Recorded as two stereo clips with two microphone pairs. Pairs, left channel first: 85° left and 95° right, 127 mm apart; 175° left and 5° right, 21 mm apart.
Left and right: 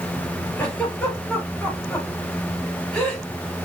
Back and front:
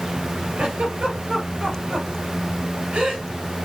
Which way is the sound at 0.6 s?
Straight ahead.